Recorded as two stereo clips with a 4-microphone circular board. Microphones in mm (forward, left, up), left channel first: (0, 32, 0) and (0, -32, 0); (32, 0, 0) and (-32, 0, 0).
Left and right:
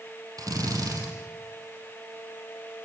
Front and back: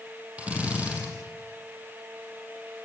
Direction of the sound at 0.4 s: 110° right.